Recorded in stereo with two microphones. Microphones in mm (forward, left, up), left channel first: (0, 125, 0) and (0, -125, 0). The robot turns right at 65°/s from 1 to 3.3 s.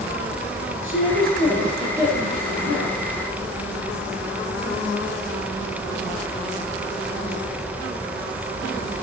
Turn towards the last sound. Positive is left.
turn(degrees=-85)